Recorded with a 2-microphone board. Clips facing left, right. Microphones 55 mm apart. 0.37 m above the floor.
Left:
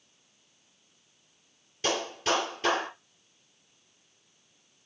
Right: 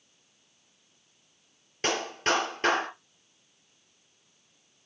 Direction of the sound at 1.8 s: 55° right (ahead or behind).